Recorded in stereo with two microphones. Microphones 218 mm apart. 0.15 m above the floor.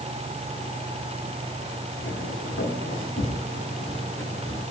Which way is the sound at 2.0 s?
65° left (ahead or behind).